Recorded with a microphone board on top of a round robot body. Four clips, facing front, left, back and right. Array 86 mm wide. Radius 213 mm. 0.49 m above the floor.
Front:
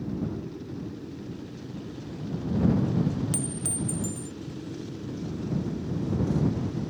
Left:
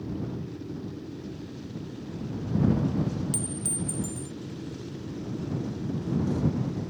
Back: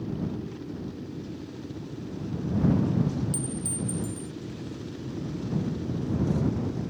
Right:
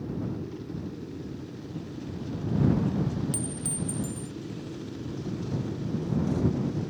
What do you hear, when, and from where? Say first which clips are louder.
3.3 s a clink: even, even; 5° right